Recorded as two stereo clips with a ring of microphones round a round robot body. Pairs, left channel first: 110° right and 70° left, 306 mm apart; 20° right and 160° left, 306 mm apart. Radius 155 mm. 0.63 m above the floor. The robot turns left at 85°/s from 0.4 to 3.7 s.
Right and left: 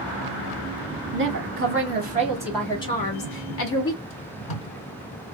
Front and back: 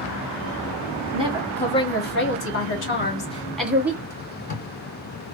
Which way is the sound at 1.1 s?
100° left.